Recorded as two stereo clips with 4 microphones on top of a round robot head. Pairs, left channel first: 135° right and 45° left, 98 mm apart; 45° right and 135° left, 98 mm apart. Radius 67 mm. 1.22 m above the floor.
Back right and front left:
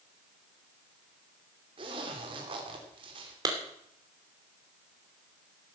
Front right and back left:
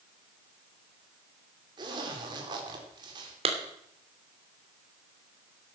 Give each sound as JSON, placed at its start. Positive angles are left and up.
{"t": 1.8, "sound": "a zipper", "azimuth_deg": 85, "distance_m": 3.5}
{"t": 3.5, "sound": "a clap", "azimuth_deg": 105, "distance_m": 3.0}